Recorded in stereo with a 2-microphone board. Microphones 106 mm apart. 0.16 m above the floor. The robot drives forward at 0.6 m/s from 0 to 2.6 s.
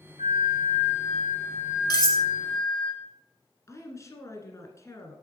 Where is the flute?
75° right (ahead or behind), 2.5 m; by 2.9 s 50° right (ahead or behind), 3 m.